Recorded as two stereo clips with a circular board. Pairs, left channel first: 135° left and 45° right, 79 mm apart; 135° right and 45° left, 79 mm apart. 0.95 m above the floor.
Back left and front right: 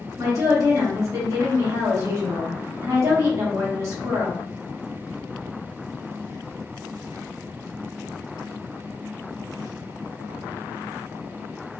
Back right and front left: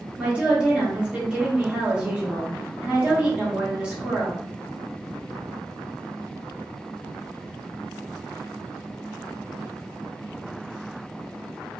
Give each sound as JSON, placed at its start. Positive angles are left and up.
{"t": 0.2, "sound": "a woman speaking", "azimuth_deg": -25, "distance_m": 1.1}